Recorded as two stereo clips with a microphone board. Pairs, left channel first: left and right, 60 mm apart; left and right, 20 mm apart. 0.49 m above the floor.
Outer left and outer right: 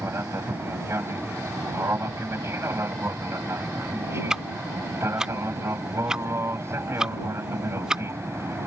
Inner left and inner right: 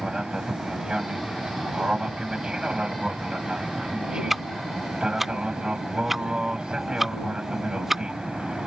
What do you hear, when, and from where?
0.0 s an aircraft: 45° right (ahead or behind)
4.3 s ticking: 10° right (ahead or behind)